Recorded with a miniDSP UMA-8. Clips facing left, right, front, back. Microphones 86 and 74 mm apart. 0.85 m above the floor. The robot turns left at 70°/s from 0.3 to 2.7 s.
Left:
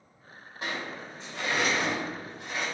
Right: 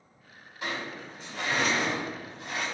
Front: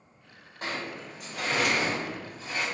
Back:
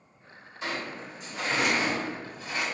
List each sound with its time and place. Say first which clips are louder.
0.6 s a sliding door: even, back 1 dB; 40° left, 1.6 m; by 2.6 s 105° right, 1.6 m